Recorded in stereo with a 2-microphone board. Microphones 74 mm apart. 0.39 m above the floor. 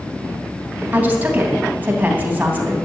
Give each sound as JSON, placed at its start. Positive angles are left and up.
{"t": 0.9, "sound": "a woman speaking", "side_deg": -20, "distance_m": 3.0}